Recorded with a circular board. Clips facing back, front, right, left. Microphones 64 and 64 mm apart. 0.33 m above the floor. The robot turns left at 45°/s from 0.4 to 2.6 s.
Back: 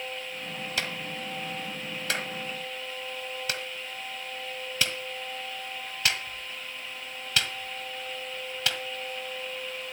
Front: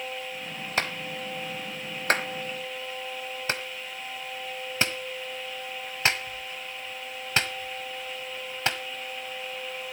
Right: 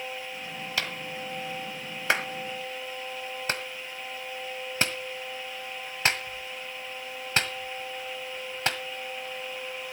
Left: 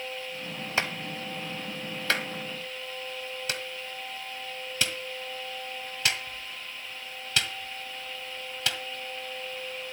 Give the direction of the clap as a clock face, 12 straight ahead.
11 o'clock.